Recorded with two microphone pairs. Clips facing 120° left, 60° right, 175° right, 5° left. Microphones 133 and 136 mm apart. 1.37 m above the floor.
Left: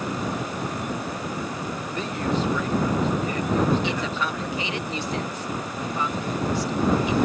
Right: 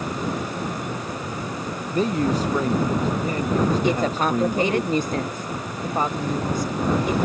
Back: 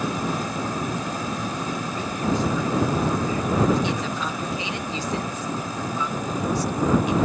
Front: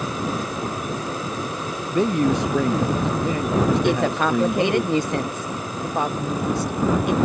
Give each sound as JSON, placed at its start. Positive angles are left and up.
{"t": 1.9, "sound": "a man speaking", "azimuth_deg": -10}
{"t": 3.8, "sound": "a woman speaking", "azimuth_deg": -20}